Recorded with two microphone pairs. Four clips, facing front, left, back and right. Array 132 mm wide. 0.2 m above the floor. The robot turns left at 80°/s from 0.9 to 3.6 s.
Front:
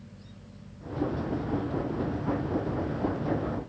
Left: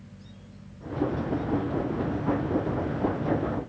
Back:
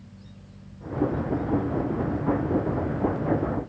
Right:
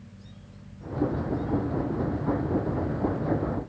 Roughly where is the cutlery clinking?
I don't hear cutlery clinking.